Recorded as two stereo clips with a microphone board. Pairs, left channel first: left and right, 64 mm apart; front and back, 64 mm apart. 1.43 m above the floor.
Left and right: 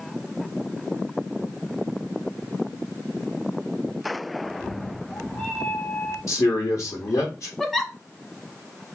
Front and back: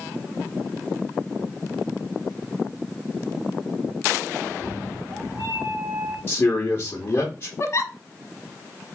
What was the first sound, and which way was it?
A cat meowing, 160° left.